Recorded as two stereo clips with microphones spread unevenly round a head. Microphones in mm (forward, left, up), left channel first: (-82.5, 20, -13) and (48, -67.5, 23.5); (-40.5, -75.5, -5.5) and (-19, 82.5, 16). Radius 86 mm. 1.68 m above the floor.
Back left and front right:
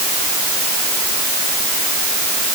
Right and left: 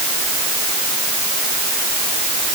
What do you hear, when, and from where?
Only background noise.